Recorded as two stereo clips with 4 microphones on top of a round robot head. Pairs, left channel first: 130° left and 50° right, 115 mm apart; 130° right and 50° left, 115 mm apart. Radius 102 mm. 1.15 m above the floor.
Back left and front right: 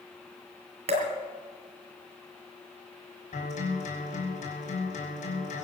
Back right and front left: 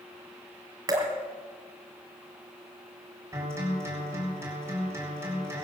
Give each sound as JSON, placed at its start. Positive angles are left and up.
{"t": 0.9, "sound": "dripping", "azimuth_deg": -10, "distance_m": 2.0}
{"t": 3.3, "sound": "a guitar", "azimuth_deg": 115, "distance_m": 6.0}